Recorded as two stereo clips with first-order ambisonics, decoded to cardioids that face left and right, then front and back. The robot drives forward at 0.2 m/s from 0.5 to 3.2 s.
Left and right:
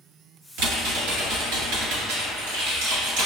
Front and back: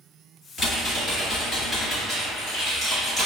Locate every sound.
0.6 s typing on a keyboard: 75° right, 1.5 m; by 3.3 s 100° right, 1.5 m